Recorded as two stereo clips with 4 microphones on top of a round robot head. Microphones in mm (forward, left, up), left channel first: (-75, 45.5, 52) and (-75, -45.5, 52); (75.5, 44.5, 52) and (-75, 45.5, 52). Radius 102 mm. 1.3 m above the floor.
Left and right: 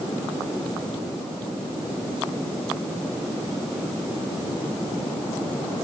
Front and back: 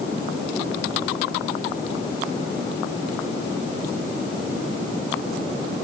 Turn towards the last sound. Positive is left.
No sound to turn to.